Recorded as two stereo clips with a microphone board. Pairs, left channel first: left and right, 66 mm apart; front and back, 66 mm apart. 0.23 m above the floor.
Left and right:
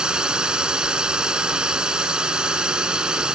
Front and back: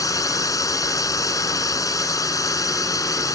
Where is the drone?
15° right.